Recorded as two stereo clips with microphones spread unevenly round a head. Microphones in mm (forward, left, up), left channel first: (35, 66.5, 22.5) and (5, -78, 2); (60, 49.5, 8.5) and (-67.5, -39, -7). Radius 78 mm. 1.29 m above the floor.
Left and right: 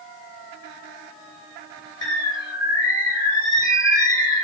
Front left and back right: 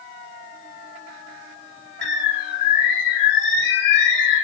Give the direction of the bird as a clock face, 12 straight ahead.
12 o'clock.